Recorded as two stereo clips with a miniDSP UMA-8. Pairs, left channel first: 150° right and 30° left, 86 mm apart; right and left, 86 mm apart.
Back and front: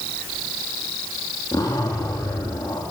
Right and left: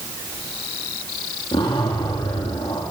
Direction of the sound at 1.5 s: 100° right.